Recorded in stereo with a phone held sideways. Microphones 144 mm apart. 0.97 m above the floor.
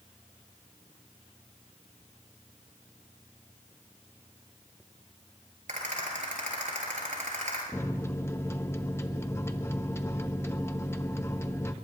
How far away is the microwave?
About 0.8 m.